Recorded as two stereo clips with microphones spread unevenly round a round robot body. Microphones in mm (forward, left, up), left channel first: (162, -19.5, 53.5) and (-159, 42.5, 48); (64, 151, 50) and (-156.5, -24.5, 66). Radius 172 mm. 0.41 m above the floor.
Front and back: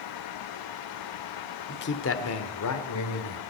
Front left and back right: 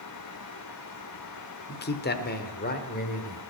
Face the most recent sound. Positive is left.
turn(degrees=-20)